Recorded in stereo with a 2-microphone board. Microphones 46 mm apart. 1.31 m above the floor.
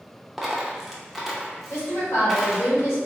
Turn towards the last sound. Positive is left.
turn(degrees=75)  # may be behind; listen again after turning